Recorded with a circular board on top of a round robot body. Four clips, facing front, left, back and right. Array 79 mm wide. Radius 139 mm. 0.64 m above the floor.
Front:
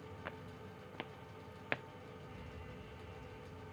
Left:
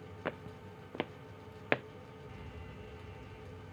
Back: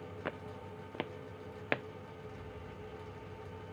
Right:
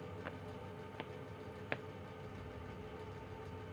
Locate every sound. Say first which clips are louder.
0.2 s footsteps: left 5 dB, back 8 dB; 125° left; by 1.8 s 115° left
2.3 s an alarm: even, back 4 dB; 80° left